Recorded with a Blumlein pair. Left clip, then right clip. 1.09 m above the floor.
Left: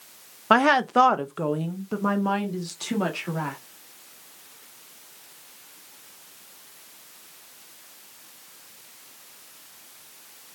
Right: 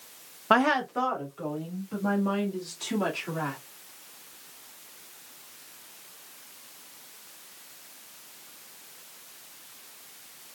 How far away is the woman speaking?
About 0.5 m.